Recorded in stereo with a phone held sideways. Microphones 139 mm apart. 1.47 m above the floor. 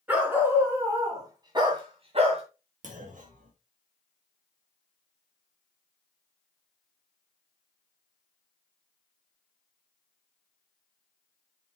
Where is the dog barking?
15° right (ahead or behind), 4 m; by 2.4 s 55° right (ahead or behind), 2 m.